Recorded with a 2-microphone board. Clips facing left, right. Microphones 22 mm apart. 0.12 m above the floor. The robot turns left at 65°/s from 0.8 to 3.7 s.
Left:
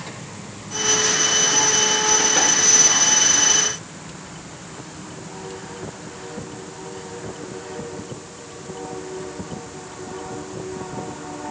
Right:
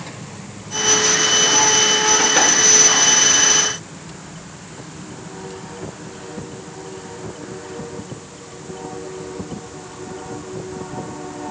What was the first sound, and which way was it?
Only background noise.